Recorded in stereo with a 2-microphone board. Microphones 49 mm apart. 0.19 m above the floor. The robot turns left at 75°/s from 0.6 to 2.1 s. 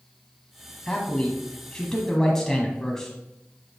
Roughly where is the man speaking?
Centre.